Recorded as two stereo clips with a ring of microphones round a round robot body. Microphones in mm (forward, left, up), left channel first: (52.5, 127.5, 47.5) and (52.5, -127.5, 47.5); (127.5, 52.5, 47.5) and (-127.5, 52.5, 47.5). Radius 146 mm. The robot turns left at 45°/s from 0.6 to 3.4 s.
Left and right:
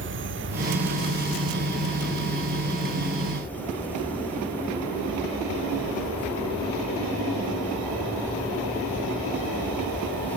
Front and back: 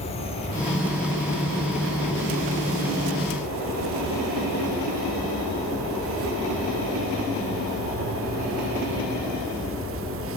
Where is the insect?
60° right, 0.7 m; by 10.4 s 170° left, 0.7 m.